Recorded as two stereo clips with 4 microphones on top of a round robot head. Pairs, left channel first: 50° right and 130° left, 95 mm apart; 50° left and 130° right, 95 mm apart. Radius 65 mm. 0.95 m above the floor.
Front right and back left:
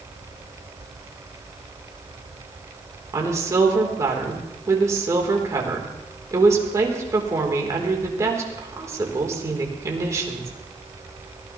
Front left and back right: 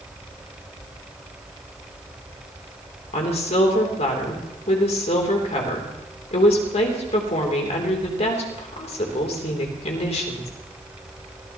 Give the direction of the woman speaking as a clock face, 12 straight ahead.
10 o'clock.